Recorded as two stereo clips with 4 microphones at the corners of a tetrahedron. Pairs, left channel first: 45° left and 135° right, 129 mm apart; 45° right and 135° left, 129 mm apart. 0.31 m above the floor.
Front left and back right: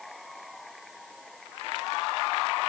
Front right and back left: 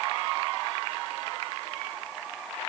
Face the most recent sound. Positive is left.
No sound to turn to.